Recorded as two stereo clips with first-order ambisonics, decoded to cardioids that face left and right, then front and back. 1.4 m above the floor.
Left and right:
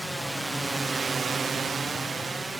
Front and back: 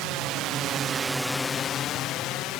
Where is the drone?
175° right; by 2.6 s 15° right.